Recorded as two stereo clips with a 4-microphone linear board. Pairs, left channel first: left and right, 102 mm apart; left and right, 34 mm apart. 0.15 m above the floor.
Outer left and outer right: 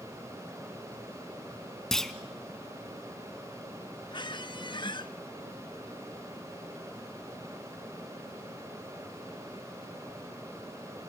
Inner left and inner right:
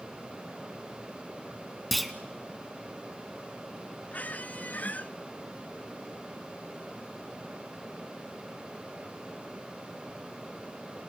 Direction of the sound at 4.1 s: 50° left (ahead or behind).